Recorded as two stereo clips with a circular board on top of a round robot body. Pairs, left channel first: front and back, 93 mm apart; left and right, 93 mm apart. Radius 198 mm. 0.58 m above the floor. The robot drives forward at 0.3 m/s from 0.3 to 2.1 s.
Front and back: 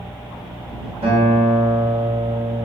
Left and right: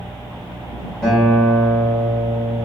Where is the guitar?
170° left, 0.9 m; by 2.6 s 175° left, 1.2 m.